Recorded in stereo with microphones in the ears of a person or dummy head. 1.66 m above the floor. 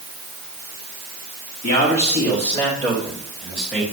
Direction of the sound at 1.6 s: 35° left (ahead or behind).